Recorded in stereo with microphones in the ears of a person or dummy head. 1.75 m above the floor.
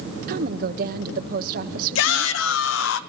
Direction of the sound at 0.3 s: 50° right (ahead or behind).